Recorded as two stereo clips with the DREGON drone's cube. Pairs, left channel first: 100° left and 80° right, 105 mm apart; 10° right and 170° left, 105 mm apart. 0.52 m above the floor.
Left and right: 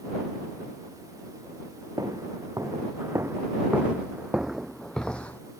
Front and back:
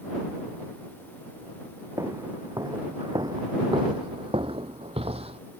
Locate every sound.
2.0 s footsteps: 130° right; by 5.4 s 175° left